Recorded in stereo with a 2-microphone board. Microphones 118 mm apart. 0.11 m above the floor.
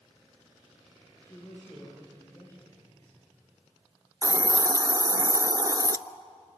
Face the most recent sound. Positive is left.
turn(degrees=-35)  # may be behind; listen again after turning